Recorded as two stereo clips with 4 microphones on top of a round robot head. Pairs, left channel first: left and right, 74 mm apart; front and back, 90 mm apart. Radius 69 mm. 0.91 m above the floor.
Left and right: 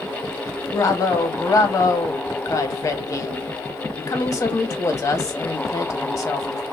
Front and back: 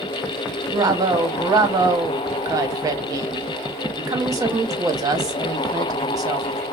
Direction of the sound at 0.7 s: 130° left.